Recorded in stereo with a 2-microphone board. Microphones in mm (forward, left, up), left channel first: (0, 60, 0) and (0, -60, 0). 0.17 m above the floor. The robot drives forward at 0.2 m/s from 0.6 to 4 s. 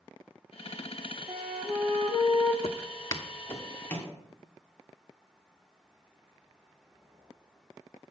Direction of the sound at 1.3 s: 65° right (ahead or behind).